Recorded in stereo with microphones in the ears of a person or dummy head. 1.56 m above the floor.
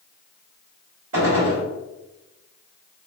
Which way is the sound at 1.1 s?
55° right (ahead or behind).